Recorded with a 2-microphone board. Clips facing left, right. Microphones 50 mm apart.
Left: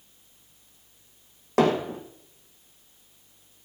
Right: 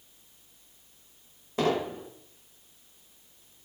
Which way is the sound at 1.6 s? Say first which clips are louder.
Left 5 dB; 70° left (ahead or behind).